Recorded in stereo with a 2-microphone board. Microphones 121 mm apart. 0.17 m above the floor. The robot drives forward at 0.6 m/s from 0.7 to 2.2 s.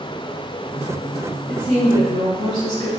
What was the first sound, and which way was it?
A woman speaking, 40° left (ahead or behind).